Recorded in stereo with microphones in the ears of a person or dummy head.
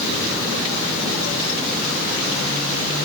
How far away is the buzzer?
I don't hear a buzzer.